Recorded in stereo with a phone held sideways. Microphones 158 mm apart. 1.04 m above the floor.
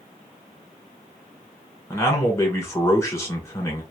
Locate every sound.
1.9 s a man speaking: 15° left (ahead or behind), 1.2 m